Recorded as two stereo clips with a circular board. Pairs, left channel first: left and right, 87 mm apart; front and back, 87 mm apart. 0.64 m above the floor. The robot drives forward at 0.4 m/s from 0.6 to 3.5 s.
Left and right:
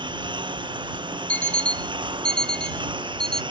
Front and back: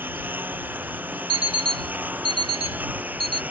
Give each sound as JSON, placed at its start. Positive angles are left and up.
{"t": 0.0, "sound": "a lawn mower", "azimuth_deg": -115}
{"t": 1.3, "sound": "an alarm clock", "azimuth_deg": 165}